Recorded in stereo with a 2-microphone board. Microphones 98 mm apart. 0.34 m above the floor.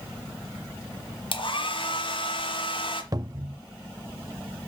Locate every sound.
1.3 s a hair dryer: 60° left (ahead or behind), 1.4 m
3.1 s a cupboard door: 40° right (ahead or behind), 0.5 m